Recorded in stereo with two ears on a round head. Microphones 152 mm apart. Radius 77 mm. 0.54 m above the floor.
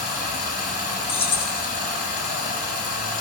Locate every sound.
0.0 s running water: 50° left (ahead or behind), 1.0 m
1.1 s keys jangling: 35° left (ahead or behind), 0.8 m